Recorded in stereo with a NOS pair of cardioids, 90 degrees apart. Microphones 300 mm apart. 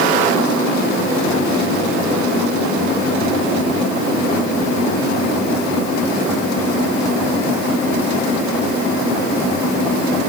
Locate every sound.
Only background noise.